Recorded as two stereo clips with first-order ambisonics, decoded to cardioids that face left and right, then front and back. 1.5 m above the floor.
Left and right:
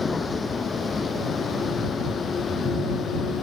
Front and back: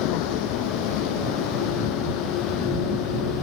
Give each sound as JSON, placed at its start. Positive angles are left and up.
{"t": 0.0, "sound": "a vehicle", "azimuth_deg": 15}